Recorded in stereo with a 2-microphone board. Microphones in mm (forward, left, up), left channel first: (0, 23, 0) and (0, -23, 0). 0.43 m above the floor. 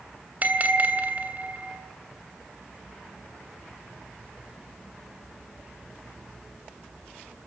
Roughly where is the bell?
Right.